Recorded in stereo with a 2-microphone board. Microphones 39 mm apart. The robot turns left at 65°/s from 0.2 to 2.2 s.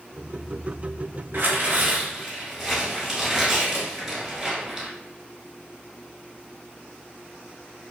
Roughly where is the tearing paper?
Right.